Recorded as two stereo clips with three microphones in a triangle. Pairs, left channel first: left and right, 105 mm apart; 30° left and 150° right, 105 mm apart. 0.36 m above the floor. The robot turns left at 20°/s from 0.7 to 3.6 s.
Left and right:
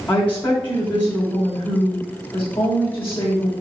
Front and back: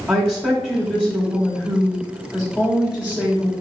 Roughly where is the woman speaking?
Behind left.